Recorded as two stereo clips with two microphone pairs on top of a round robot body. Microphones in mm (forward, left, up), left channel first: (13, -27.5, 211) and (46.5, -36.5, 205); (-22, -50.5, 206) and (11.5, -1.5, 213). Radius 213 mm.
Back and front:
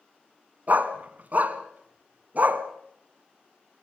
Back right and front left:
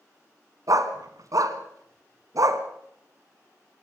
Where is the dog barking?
25° left, 1.5 m.